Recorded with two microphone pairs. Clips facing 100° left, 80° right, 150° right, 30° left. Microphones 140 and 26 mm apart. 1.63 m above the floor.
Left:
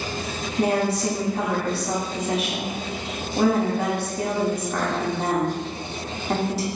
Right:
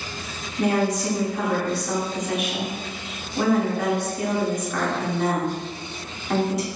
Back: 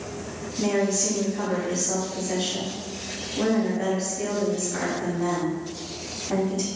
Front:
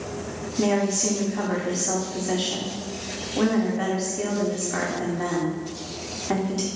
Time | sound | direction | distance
0.6 | a woman speaking | 45° left | 1.3 m